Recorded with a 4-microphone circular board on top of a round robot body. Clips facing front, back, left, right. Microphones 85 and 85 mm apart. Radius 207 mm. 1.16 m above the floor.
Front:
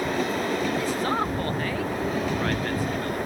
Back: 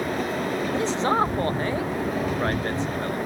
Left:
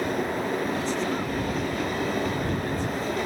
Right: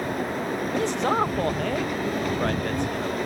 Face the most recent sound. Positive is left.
turn(degrees=-115)